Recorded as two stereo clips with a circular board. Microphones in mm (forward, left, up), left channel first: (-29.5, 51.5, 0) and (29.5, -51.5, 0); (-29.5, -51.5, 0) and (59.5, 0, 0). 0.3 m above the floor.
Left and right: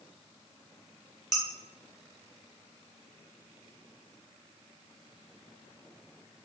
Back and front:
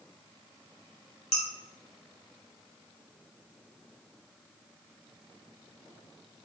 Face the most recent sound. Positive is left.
turn(degrees=-150)